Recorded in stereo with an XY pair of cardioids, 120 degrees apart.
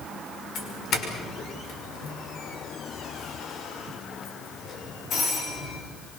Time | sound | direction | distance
0.6 | a doorbell | 60° left | 6 m